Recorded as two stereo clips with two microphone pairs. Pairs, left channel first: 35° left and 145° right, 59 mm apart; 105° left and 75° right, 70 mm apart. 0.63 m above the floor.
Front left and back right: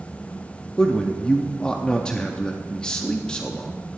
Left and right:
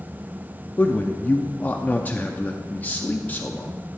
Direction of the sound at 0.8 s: 95° left.